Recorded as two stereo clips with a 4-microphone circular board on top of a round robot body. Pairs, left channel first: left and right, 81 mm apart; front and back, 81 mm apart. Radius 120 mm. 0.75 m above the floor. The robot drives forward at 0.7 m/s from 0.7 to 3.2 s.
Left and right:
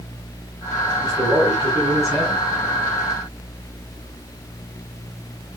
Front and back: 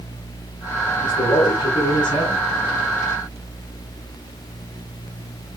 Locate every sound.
1.0 s a man speaking: 30° right, 7.5 m; by 2.5 s 35° right, 6.5 m